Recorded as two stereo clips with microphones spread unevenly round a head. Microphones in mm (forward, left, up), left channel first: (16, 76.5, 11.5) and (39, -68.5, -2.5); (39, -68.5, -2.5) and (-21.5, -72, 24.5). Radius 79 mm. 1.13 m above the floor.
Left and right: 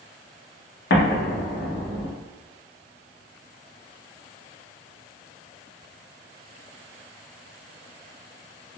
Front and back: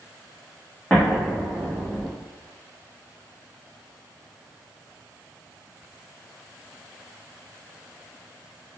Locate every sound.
0.9 s an explosion: 80° left, 0.7 m